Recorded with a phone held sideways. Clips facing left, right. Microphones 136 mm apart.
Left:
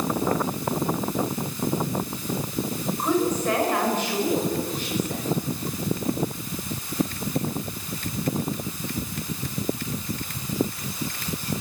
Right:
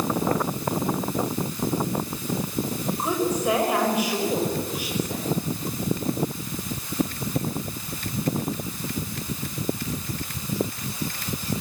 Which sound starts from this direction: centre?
A woman speaking, at 3.0 s.